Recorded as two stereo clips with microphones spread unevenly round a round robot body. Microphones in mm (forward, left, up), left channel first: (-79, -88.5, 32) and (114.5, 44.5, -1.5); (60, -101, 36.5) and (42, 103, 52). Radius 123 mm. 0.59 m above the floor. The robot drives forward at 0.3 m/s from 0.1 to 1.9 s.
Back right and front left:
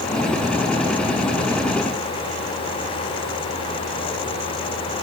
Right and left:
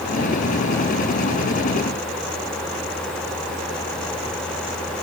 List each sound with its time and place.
Only background noise.